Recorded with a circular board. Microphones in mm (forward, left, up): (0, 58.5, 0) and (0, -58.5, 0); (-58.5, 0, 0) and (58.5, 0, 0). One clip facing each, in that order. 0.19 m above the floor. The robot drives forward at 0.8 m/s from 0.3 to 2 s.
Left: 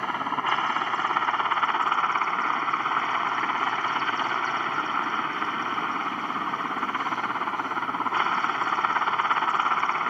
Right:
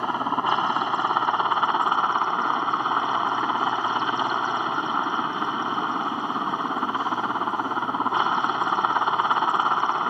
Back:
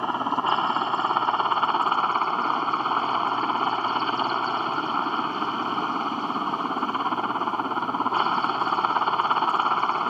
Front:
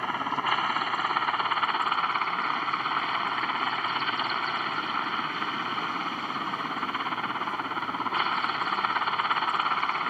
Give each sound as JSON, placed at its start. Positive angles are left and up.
{"t": 0.0, "sound": "a helicopter", "azimuth_deg": -140}